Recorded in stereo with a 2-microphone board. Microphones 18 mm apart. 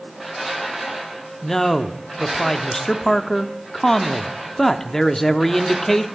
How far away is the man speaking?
About 1.0 m.